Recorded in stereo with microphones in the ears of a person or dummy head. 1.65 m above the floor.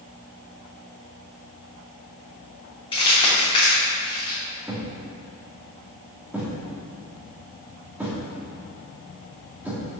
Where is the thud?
5° right (ahead or behind), 1.9 m.